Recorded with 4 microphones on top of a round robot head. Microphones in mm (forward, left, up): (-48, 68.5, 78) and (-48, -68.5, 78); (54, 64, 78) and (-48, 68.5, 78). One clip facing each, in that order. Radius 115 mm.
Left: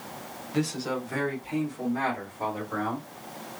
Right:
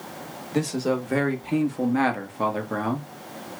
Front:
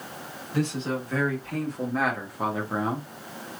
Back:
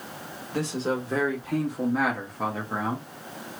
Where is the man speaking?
130° right, 1.4 m; by 3.1 s 70° right, 1.3 m.